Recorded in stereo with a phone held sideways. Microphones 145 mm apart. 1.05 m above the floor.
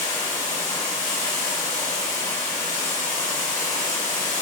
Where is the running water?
25° left (ahead or behind), 1.0 m.